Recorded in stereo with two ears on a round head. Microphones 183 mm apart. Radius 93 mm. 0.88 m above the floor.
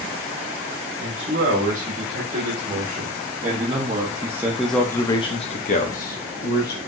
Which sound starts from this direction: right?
A man speaking, at 1.0 s.